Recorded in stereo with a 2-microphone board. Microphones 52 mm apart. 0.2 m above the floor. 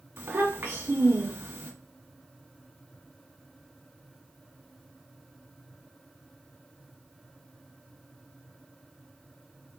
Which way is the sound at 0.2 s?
45° right (ahead or behind).